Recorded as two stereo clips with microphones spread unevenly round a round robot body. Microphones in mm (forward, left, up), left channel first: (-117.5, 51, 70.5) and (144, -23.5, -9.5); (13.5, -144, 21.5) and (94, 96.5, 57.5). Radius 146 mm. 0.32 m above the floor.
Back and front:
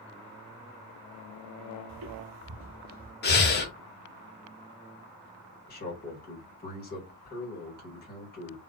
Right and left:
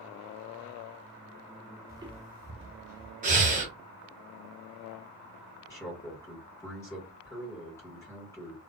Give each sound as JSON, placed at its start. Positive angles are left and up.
{"t": 1.9, "sound": "footsteps", "azimuth_deg": -5, "distance_m": 0.6}
{"t": 3.2, "sound": "breathing", "azimuth_deg": 115, "distance_m": 0.8}
{"t": 5.7, "sound": "a man speaking", "azimuth_deg": -145, "distance_m": 1.3}